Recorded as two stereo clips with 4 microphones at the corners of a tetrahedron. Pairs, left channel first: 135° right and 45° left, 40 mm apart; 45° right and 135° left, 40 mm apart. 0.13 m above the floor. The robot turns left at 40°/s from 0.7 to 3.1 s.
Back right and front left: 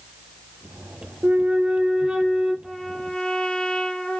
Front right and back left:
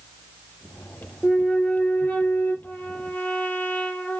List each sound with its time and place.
1.2 s a flute: 15° left, 2.5 m; by 2.5 s 40° right, 2.5 m
2.6 s a trumpet: 60° right, 3 m; by 4.2 s 80° right, 3 m